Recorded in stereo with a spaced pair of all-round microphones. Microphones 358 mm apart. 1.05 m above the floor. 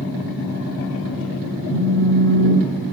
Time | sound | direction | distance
1.7 | a phone buzzing | 75° left (ahead or behind) | 1.5 m